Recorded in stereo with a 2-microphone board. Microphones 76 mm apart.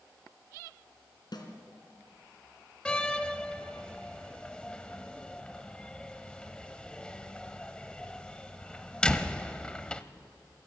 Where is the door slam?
15° left (ahead or behind), 0.8 m.